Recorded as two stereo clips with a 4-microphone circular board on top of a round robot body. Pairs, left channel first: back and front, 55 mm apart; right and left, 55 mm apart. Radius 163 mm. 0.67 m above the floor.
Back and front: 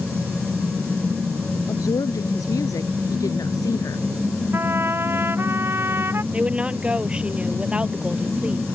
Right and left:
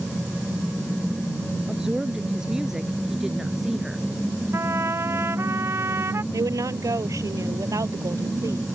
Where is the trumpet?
50° left.